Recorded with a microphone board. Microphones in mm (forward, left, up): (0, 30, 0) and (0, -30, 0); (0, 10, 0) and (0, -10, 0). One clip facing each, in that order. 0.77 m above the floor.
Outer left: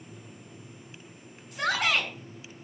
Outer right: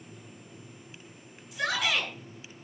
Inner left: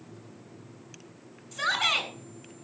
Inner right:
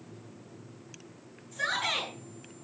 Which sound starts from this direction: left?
A shout, at 1.5 s.